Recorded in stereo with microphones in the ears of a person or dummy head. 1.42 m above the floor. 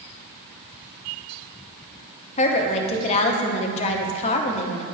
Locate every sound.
2.4 s a woman speaking: 35° left (ahead or behind), 0.7 m